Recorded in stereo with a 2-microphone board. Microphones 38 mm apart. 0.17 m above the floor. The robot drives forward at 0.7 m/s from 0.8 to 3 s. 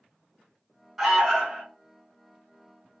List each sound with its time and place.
1.0 s an alarm: 5° right (ahead or behind), 1.1 m